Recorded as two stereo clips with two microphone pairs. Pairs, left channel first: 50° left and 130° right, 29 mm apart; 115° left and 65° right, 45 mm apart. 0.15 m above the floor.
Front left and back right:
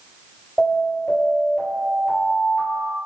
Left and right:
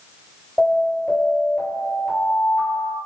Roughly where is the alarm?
Left.